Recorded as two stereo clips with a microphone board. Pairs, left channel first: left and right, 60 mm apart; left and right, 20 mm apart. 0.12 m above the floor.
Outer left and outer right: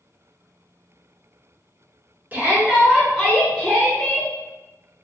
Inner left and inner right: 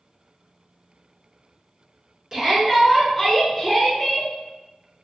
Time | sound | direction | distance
2.3 | a shout | 30° right (ahead or behind) | 1.1 m